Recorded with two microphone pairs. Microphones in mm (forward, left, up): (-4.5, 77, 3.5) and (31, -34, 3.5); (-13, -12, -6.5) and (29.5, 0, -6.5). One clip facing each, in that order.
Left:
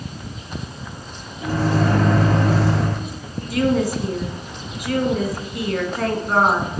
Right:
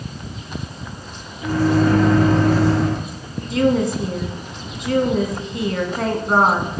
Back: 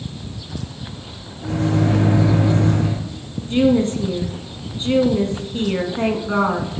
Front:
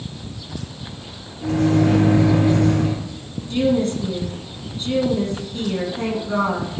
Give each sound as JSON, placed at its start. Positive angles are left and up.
{"t": 1.4, "sound": "a microwave", "azimuth_deg": 50, "distance_m": 3.5}
{"t": 3.5, "sound": "a woman speaking", "azimuth_deg": -125, "distance_m": 1.5}